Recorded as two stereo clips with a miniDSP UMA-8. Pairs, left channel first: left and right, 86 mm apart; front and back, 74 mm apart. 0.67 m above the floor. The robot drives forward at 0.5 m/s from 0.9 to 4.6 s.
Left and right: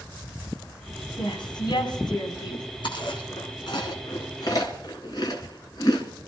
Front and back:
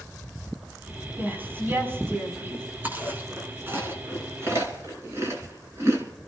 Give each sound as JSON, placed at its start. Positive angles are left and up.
{"t": 1.2, "sound": "a woman speaking", "azimuth_deg": 115, "distance_m": 5.0}
{"t": 2.8, "sound": "chewing", "azimuth_deg": 115, "distance_m": 3.0}